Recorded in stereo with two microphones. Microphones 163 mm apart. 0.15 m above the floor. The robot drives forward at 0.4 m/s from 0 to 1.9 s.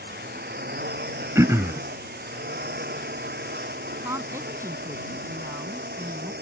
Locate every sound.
0.0 s a drone: 80° right
1.4 s throat clearing: 20° right (ahead or behind)
4.0 s a woman speaking: 20° right (ahead or behind)